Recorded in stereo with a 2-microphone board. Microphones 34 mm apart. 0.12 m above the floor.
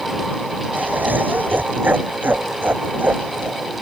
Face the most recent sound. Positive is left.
turn(degrees=-75)  # may be behind; listen again after turning